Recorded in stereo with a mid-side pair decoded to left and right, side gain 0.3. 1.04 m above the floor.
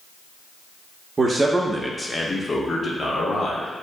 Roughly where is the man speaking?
Ahead right.